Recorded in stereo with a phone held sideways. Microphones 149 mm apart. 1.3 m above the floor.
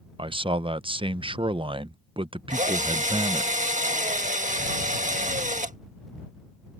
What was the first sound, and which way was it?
A man speaking, 35° right (ahead or behind).